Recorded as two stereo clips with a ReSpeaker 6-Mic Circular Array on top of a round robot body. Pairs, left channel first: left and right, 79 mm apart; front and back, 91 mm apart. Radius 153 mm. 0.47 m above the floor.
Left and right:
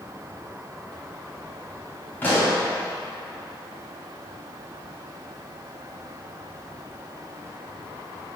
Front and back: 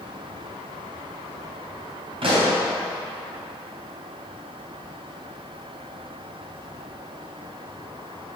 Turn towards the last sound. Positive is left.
turn(degrees=155)